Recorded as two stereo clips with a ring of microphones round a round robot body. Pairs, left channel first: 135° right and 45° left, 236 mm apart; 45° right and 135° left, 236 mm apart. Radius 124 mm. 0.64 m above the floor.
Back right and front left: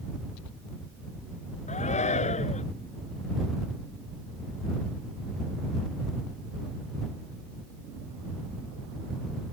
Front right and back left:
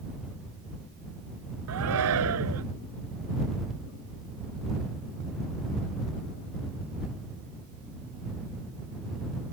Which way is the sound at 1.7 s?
160° left.